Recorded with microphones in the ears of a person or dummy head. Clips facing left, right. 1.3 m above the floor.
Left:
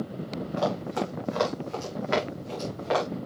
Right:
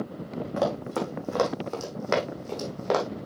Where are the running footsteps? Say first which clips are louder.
Right 1 dB; 70° right (ahead or behind), 4 m; by 3.0 s 65° right (ahead or behind), 2.5 m.